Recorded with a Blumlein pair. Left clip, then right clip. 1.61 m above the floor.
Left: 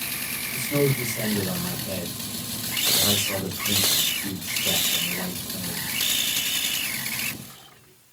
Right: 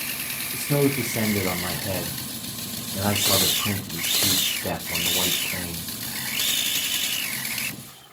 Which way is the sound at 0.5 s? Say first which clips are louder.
Right 1 dB; 50° right.